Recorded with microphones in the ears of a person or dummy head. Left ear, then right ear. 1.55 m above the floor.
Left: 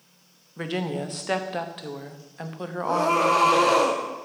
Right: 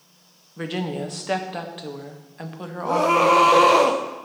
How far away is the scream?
About 0.7 m.